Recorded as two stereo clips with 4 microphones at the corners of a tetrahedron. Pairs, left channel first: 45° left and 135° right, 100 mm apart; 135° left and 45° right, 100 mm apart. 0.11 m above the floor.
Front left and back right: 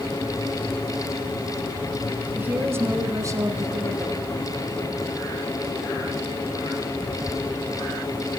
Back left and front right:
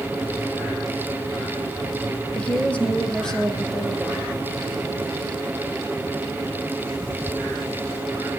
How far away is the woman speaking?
About 1.6 m.